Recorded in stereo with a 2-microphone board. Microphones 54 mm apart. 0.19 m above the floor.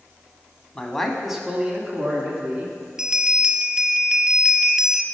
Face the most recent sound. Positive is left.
turn(degrees=-10)  # may be behind; listen again after turning